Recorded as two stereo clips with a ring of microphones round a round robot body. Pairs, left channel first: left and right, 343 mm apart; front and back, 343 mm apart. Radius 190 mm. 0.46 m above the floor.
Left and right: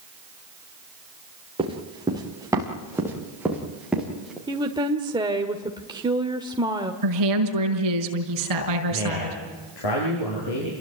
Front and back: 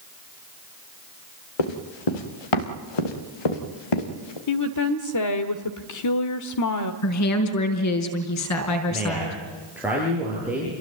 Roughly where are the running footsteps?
Ahead.